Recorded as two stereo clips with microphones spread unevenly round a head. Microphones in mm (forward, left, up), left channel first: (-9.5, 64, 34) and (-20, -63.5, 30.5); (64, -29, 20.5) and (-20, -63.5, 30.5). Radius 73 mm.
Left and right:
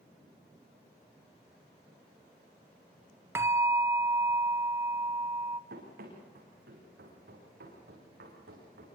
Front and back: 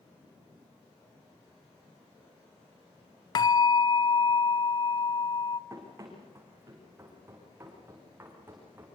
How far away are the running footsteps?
About 7.5 m.